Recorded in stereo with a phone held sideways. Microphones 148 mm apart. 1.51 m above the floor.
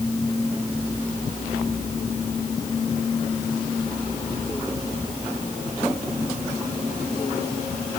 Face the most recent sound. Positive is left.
No sound to turn to.